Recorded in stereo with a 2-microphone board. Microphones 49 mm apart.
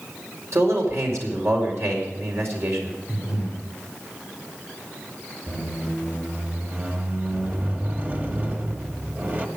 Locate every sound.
0.5 s a man speaking: 65° right (ahead or behind), 4.5 m
3.1 s breathing: 20° right (ahead or behind), 6 m
5.5 s a squeak: 40° right (ahead or behind), 1.9 m